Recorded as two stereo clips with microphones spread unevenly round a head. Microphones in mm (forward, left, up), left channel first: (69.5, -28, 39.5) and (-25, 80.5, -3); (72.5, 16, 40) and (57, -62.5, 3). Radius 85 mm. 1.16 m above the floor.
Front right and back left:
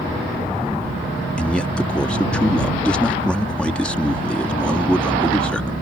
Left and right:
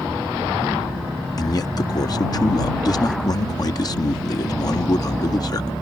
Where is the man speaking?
35° left.